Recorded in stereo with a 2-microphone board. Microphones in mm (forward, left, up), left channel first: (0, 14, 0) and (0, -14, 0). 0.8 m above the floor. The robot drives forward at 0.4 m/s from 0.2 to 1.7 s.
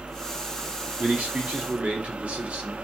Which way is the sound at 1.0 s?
65° right (ahead or behind).